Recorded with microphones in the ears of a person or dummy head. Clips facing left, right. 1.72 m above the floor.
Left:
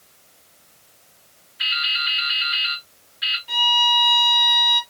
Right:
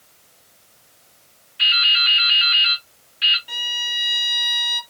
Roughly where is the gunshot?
No gunshot in this recording.